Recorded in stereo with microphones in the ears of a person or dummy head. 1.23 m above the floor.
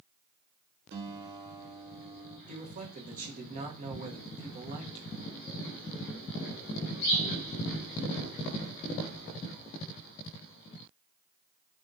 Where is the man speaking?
40° right (ahead or behind), 0.7 m.